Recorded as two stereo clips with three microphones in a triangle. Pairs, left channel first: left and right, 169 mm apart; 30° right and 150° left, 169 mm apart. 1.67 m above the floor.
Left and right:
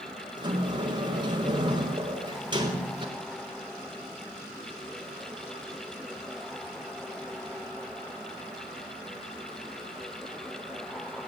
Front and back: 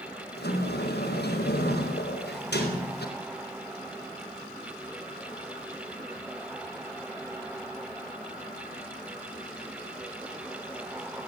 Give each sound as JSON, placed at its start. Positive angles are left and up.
{"t": 0.4, "sound": "a sliding door", "azimuth_deg": -25, "distance_m": 5.0}